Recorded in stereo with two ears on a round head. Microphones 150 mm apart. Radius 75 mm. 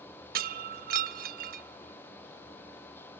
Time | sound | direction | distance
0.3 | breaking glass | 55° right (ahead or behind) | 1.0 m